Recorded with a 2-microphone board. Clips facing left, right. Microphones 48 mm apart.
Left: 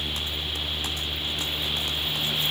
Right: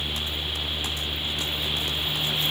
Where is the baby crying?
No baby crying in this recording.